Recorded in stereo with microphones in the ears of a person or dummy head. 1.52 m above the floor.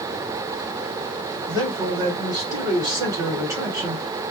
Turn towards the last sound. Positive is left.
turn(degrees=-20)  # may be behind; listen again after turning